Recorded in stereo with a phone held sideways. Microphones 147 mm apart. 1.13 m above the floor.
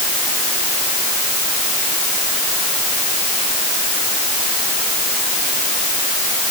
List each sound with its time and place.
Only background noise.